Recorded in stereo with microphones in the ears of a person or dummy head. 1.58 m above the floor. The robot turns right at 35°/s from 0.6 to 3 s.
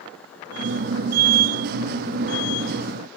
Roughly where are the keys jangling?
No keys jangling in this recording.